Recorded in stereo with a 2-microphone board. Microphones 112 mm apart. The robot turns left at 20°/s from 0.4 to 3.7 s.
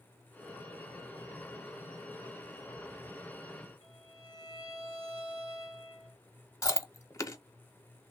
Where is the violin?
50° right (ahead or behind), 2 m.